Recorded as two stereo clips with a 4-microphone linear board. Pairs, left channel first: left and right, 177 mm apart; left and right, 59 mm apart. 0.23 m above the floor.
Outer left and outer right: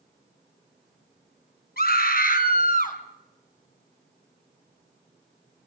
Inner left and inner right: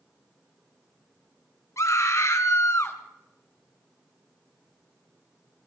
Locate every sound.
1.8 s a scream: 60° left (ahead or behind), 3 m; by 3.0 s 50° left (ahead or behind), 3 m